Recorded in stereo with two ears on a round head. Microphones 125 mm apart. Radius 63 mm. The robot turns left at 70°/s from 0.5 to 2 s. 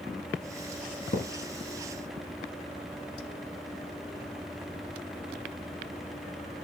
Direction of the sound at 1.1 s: 55° left (ahead or behind).